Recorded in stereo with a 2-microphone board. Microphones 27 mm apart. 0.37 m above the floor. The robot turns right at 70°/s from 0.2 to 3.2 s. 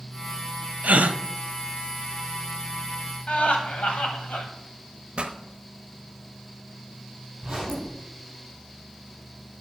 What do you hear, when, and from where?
0.8 s a gasp: 65° right (ahead or behind), 0.6 m; by 1.2 s 75° right (ahead or behind), 0.6 m
3.3 s laughter: 60° left (ahead or behind), 2.5 m
5.2 s a pop: 45° right (ahead or behind), 1.0 m
7.4 s a zipper: 35° right (ahead or behind), 5 m